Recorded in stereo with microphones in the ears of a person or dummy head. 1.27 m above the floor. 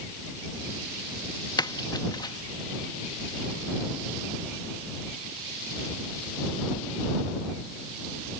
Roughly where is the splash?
Left.